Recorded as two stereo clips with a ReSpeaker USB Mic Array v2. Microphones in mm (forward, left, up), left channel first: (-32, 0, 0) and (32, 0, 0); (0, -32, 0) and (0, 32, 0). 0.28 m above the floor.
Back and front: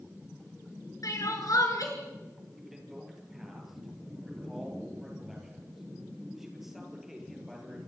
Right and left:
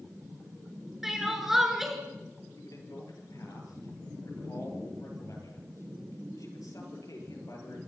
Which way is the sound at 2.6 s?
85° right.